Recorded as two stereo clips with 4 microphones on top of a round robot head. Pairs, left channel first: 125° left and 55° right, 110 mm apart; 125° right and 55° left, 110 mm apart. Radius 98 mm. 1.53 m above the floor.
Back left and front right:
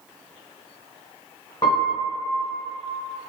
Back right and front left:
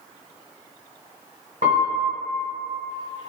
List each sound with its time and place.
1.6 s a piano: 75° left, 0.7 m